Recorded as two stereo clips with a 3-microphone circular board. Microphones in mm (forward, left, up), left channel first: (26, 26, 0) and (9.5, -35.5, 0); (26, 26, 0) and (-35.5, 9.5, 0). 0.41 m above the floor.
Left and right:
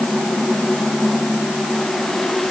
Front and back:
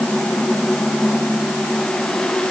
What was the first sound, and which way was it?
Only background noise.